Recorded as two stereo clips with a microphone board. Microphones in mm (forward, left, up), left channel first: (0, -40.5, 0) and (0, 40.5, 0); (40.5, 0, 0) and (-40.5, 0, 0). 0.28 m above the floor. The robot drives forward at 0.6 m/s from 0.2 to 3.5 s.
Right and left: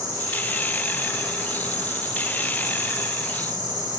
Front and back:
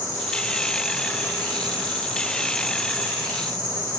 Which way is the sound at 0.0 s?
50° left.